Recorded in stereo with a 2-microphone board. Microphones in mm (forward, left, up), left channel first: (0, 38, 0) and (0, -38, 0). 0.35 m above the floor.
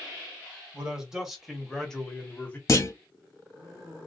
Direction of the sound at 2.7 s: 40° left (ahead or behind).